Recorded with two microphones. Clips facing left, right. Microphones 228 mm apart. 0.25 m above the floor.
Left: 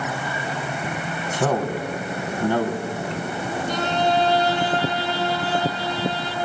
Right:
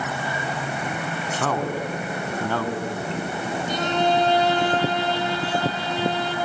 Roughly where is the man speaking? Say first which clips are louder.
Left 4 dB; centre.